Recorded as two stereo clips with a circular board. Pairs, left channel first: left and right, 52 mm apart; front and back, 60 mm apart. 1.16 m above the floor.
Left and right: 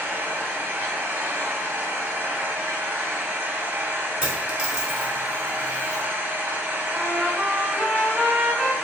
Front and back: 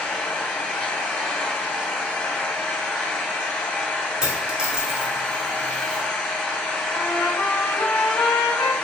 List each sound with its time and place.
0.0 s an engine running: 65° right, 0.9 m
4.2 s a dropped coin: 125° right, 0.8 m
6.9 s a trumpet: 5° left, 0.8 m